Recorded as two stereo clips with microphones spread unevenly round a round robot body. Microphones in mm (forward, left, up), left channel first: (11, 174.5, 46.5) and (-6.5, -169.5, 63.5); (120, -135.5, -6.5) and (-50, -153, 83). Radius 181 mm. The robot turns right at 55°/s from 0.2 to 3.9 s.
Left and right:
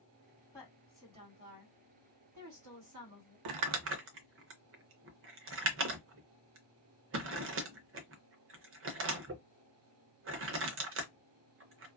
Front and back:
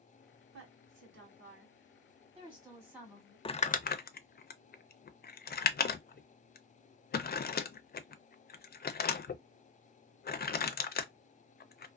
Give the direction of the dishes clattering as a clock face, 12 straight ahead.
I don't hear dishes clattering.